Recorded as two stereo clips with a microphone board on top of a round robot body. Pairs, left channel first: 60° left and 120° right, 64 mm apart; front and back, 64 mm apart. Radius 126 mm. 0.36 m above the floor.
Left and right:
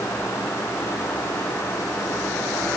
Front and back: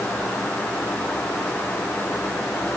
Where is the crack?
I don't hear a crack.